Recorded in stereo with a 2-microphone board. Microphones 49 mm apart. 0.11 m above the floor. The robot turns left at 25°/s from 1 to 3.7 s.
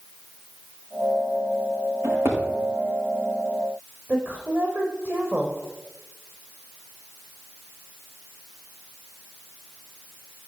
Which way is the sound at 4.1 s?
40° right (ahead or behind).